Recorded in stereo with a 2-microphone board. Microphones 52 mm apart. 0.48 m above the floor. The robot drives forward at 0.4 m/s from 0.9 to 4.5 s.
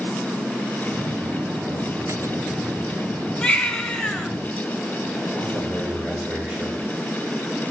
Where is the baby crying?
20° left (ahead or behind), 1.4 m; by 4.3 s 15° left (ahead or behind), 1.8 m.